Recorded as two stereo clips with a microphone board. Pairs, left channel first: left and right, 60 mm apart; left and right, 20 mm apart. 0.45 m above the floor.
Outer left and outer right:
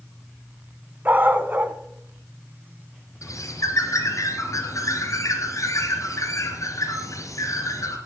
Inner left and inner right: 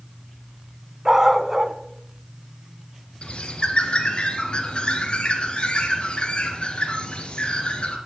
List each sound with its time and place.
1.1 s a dog barking: 30° right (ahead or behind), 1.1 m
3.2 s a bird: 60° left (ahead or behind), 3 m